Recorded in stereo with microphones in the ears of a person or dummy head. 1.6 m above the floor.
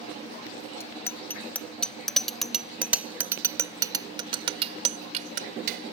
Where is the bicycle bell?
10° left (ahead or behind); by 5.9 s 65° right (ahead or behind).